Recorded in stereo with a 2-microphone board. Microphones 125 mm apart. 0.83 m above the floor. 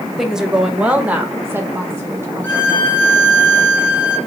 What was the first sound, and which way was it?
A woman speaking, 5° right (ahead or behind).